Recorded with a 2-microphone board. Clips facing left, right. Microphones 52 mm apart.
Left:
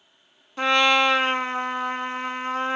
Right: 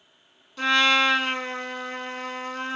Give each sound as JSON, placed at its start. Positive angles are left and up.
{"t": 0.6, "sound": "a trumpet", "side_deg": 30, "distance_m": 0.5}